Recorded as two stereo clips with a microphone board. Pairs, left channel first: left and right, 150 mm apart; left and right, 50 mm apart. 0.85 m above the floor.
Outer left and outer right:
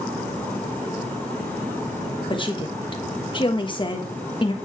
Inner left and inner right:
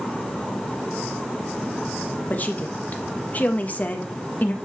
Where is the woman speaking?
35° left (ahead or behind), 1.0 m.